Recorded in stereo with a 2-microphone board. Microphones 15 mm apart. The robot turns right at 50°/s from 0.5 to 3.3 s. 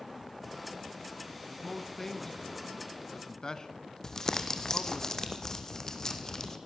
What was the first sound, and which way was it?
A man speaking, 5° right (ahead or behind).